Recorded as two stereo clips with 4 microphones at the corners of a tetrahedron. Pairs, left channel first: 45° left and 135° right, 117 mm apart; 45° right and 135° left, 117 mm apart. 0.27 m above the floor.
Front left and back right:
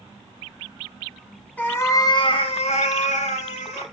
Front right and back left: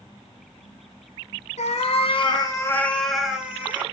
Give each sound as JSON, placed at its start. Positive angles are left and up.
{"t": 1.6, "sound": "a cat meowing", "azimuth_deg": -30, "distance_m": 0.7}